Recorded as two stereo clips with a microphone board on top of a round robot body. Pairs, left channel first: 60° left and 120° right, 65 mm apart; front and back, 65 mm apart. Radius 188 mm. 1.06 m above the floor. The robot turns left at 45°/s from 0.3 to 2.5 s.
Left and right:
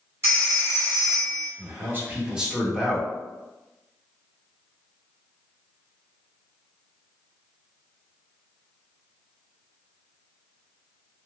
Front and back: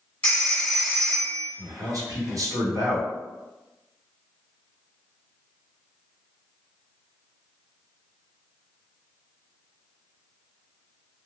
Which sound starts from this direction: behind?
A man speaking, at 1.6 s.